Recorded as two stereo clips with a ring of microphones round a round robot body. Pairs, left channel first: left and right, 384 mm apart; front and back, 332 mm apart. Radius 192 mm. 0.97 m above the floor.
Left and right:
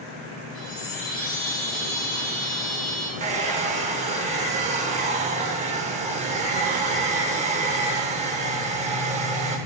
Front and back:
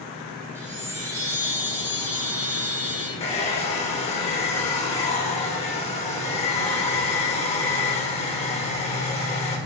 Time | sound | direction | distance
0.6 | a chime | 100° left | 2.5 m
3.2 | a hair dryer | 45° right | 0.6 m